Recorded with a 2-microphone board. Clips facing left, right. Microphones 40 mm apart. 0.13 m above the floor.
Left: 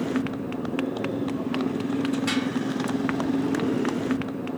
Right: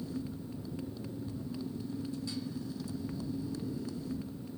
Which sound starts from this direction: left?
A motorcycle, at 0.0 s.